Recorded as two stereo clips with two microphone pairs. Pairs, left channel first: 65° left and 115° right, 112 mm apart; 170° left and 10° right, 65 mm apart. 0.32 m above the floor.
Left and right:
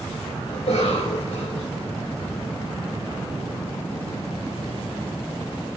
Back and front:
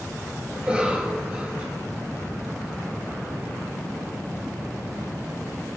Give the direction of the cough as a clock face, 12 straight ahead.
10 o'clock.